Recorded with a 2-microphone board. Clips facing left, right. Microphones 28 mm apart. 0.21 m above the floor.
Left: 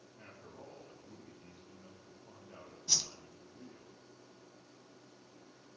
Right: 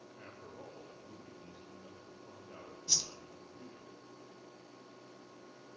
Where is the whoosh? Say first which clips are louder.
Left 1 dB; 15° left (ahead or behind), 0.6 m.